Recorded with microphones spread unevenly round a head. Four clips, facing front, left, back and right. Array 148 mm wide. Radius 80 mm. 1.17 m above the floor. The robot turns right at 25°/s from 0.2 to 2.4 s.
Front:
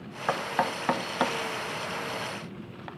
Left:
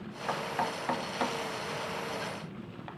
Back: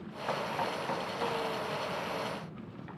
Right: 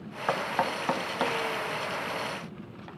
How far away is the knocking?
About 0.9 m.